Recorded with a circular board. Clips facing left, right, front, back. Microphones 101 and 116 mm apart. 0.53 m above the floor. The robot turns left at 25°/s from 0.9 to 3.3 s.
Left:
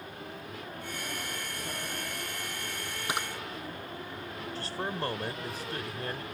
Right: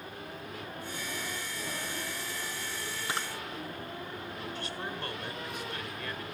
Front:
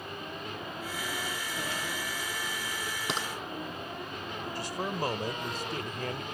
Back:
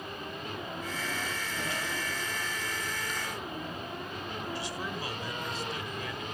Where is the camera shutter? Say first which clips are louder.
Left 2 dB, front 3 dB; 15° left; by 3.3 s 10° left.